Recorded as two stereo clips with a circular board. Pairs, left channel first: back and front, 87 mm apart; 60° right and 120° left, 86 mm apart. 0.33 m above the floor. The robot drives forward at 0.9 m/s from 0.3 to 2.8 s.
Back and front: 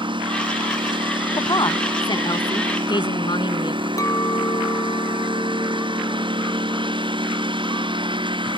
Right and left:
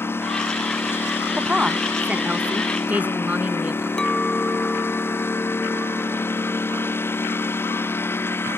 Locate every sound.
0.0 s a lawn mower: 5° left
1.4 s a woman speaking: 160° right; by 3.9 s 170° right
4.0 s a clink: 140° right